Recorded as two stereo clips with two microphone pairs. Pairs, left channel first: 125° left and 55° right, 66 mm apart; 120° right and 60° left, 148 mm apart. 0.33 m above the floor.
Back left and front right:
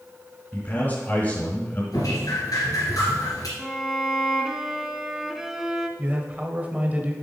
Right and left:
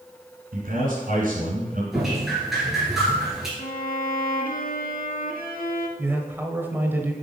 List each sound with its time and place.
0.5 s a man speaking: 70° left, 2.5 m
1.9 s dripping: 150° left, 2.5 m
3.6 s a violin: 140° right, 0.7 m
6.0 s a man speaking: 5° right, 1.1 m